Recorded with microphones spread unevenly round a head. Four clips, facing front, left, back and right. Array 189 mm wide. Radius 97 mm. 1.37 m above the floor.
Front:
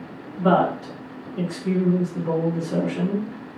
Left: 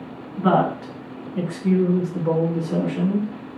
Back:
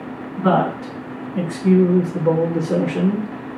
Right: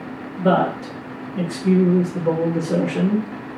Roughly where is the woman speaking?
Behind left.